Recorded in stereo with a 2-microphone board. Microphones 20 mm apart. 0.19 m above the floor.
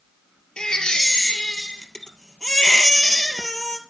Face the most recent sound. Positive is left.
turn(degrees=35)  # may be behind; listen again after turning